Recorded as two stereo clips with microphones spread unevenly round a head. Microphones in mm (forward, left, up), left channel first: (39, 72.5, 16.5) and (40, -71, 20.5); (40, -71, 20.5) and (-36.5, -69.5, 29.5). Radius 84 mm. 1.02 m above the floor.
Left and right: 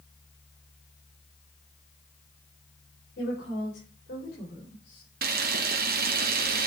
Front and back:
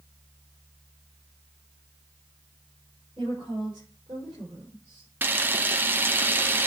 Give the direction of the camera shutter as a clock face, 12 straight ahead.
4 o'clock.